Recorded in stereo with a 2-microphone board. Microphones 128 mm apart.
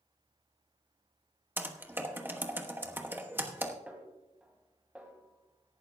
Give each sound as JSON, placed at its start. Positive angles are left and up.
{"t": 1.6, "sound": "typing on a keyboard", "side_deg": -15, "distance_m": 1.1}
{"t": 3.9, "sound": "a snare drum", "side_deg": -10, "distance_m": 1.9}